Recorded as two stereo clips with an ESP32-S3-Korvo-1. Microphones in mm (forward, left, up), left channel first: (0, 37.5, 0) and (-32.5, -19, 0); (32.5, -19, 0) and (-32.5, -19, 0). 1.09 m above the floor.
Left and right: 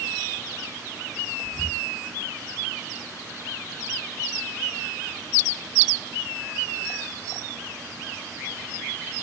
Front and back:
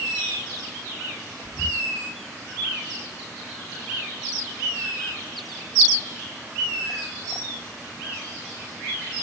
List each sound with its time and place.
1.4 s whispering: 40° right, 1.3 m